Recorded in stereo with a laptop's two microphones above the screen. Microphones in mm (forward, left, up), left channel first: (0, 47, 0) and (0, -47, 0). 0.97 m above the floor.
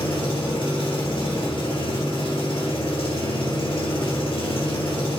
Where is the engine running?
70° left (ahead or behind), 1.9 m.